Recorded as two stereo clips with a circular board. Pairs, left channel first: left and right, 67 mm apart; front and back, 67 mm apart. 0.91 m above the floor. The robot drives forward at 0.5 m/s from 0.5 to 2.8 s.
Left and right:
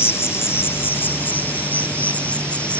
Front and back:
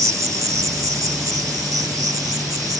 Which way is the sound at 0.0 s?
145° left.